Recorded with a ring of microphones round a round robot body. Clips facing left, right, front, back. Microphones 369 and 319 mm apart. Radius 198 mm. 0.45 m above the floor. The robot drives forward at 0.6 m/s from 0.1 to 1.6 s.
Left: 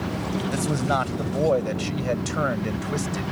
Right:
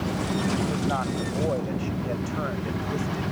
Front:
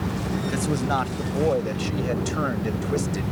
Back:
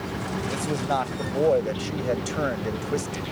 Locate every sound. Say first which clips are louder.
0.5 s a man speaking: left 1 dB, front 1 dB; 60° left; by 3.2 s 70° left